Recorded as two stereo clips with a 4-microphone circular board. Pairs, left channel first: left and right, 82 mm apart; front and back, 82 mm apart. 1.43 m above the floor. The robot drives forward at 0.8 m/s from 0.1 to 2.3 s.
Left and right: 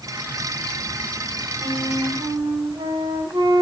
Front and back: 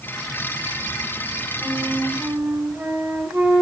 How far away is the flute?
About 6 m.